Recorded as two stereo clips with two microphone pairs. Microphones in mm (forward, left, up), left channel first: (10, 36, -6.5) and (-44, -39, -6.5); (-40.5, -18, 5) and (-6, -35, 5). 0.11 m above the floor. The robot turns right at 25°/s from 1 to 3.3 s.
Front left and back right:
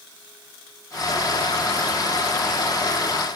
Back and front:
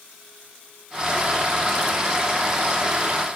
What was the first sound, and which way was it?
Only background noise.